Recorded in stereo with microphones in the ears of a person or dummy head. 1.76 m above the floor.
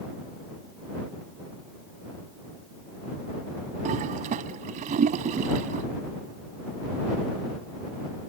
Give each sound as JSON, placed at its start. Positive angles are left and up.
{"t": 3.9, "sound": "a toilet flushing", "side_deg": -45}